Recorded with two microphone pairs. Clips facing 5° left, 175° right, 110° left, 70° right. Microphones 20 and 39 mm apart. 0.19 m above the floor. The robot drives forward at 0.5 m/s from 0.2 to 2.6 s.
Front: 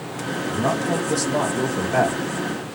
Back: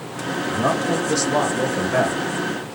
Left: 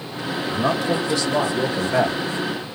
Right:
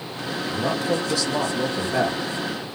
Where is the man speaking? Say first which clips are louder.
Back 2 dB, left 3 dB; 150° left, 2.5 m; by 2.2 s 160° left, 3 m.